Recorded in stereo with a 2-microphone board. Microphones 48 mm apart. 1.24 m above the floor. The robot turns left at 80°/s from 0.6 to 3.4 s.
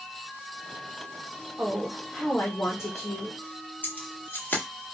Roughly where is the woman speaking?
Behind right.